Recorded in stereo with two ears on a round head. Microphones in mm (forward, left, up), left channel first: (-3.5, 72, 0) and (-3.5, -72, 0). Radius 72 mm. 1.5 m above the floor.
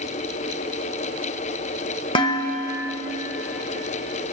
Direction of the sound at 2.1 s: 30° left (ahead or behind).